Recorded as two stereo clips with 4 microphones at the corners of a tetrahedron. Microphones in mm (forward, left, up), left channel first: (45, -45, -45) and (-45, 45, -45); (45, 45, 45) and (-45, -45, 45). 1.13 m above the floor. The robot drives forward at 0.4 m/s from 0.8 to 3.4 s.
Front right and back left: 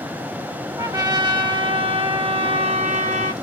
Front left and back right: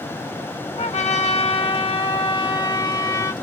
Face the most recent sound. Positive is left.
turn(degrees=115)